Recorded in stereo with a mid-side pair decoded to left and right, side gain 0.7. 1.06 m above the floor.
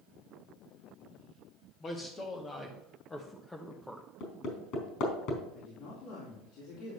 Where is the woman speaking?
65° left, 3.5 m.